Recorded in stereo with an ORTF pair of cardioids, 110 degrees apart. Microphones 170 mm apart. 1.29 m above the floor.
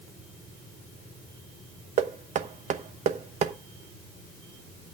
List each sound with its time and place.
2.0 s knocking: 45° right, 1.0 m